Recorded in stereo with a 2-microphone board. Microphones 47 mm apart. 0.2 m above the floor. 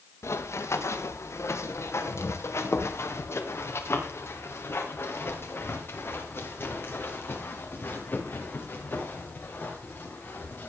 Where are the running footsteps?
85° left, 3 m; by 10.7 s 45° left (ahead or behind), 8 m.